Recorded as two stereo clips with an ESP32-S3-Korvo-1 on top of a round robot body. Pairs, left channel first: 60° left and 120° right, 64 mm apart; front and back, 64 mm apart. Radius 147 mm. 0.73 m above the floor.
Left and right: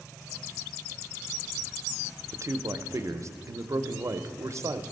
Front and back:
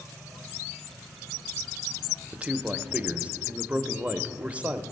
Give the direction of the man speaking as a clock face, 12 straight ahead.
4 o'clock.